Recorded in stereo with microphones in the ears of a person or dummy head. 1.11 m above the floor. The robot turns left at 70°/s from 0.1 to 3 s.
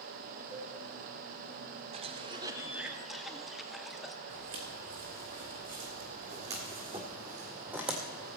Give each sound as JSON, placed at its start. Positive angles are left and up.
{"t": 0.5, "sound": "a cowbell", "side_deg": 10, "distance_m": 4.0}
{"t": 1.9, "sound": "a cough", "side_deg": -30, "distance_m": 0.7}
{"t": 4.3, "sound": "footsteps", "side_deg": -55, "distance_m": 3.0}